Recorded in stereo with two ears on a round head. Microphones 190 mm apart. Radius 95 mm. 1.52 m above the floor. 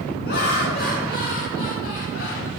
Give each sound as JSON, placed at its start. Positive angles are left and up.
{"t": 0.2, "sound": "laughter", "side_deg": 50, "distance_m": 6.5}